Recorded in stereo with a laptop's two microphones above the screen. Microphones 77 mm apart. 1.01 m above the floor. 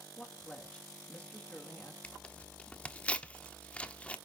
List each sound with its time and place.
0.2 s a woman speaking: 15° left (ahead or behind), 2 m
2.0 s tearing paper: 15° left (ahead or behind), 1.2 m